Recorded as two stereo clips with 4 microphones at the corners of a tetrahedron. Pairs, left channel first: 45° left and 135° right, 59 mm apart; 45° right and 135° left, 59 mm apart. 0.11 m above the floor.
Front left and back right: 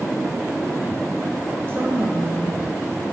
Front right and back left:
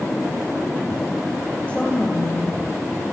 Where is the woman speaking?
110° right, 2.5 m.